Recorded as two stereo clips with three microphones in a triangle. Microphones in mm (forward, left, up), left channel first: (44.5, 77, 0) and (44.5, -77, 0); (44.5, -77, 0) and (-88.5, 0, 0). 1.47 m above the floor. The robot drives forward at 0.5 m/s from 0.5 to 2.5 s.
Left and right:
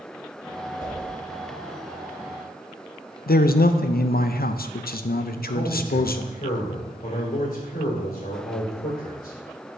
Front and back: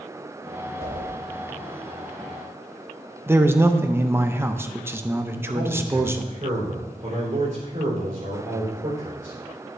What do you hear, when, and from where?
0.8 s a whoosh: 145° left, 2.5 m; by 1.1 s 150° left, 3 m
3.3 s a man speaking: 75° left, 0.5 m
5.3 s a man speaking: 110° left, 3.5 m